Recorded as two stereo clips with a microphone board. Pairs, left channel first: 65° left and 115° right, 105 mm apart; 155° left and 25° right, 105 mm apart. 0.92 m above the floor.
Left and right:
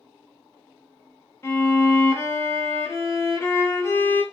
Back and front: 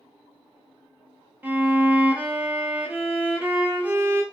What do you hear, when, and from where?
1.4 s a violin: 30° left, 0.5 m